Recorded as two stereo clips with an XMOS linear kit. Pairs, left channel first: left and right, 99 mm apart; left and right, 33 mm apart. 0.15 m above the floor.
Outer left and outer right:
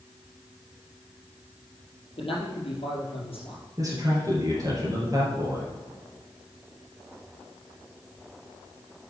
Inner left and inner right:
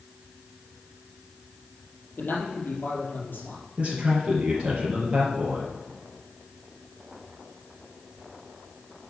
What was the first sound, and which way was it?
A man speaking, 65° left (ahead or behind).